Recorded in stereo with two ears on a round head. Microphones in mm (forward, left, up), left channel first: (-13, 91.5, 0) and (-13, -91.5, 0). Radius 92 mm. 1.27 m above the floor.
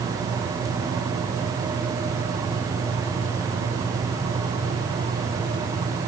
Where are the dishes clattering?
No dishes clattering in this recording.